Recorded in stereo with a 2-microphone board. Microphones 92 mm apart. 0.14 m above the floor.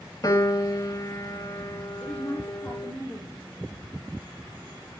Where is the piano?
35° left (ahead or behind), 1.4 m.